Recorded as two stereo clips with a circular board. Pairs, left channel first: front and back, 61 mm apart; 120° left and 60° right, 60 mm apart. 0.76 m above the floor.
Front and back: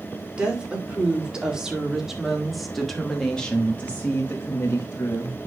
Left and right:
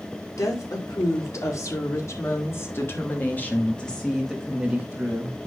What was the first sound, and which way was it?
A woman speaking, 110° left.